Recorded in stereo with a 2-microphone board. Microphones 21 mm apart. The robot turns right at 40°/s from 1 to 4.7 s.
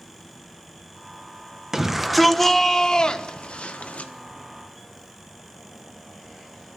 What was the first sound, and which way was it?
A shout, 20° right.